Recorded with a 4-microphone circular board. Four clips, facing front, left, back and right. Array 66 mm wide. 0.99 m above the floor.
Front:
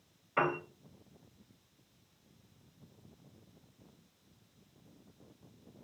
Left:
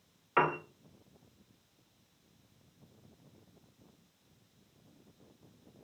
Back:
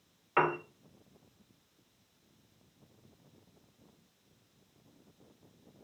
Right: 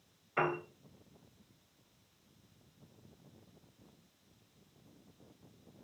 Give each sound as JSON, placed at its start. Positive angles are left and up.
{"t": 0.4, "sound": "a piano", "azimuth_deg": 135, "distance_m": 2.5}